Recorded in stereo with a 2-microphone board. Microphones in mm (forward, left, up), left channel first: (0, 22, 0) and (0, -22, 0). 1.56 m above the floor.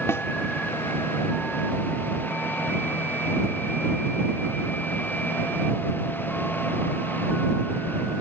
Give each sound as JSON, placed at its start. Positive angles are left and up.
{"t": 0.1, "sound": "a snare drum", "side_deg": 80}